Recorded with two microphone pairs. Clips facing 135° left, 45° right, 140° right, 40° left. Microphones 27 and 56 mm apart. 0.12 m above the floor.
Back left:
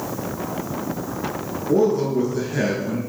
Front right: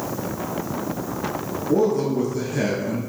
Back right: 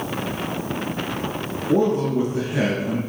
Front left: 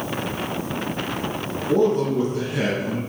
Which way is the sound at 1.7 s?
Straight behind.